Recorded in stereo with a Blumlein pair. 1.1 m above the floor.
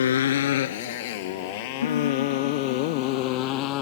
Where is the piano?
65° left.